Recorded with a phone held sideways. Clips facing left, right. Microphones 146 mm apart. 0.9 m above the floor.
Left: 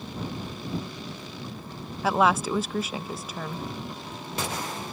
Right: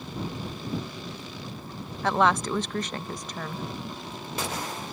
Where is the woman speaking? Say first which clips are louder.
Left 1 dB; 5° left (ahead or behind).